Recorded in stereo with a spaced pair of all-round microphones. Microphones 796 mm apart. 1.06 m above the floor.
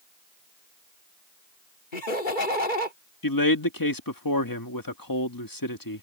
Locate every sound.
1.9 s laughter: 80° left
3.2 s a man speaking: 25° left (ahead or behind)